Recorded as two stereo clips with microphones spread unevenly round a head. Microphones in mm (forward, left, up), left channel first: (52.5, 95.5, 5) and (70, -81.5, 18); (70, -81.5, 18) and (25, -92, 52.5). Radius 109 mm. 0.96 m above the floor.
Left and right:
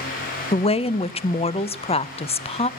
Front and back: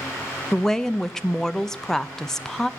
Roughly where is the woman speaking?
Ahead left.